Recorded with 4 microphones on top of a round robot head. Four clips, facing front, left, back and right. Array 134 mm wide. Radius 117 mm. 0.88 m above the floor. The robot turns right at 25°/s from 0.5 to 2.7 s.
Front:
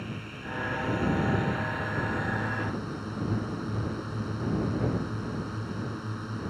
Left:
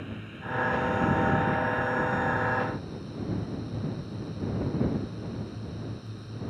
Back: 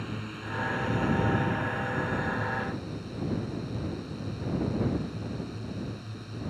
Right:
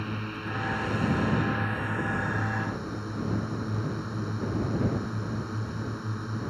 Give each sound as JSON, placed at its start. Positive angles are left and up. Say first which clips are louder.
{"t": 0.0, "sound": "a drone", "louder": "right 5 dB, back 1 dB", "azimuth_deg": -105}